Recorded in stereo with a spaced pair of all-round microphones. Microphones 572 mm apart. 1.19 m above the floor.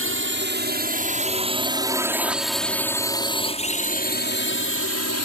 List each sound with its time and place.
0.0 s a drone: 20° right (ahead or behind); by 5.3 s 30° left (ahead or behind)